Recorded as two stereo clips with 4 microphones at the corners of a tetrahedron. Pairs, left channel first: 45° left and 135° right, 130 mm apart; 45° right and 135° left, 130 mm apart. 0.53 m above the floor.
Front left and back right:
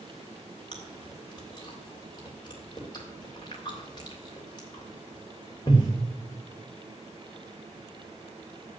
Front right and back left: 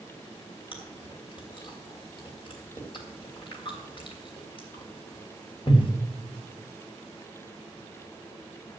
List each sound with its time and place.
0.7 s chewing: 5° right, 3 m